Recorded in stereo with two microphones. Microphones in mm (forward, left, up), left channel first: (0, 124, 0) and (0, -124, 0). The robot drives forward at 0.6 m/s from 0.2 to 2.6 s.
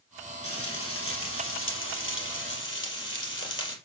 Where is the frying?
65° left (ahead or behind), 3.5 m; by 3.8 s 50° left (ahead or behind), 4 m.